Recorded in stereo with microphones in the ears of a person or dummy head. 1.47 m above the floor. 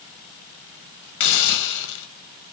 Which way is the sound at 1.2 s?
70° left (ahead or behind).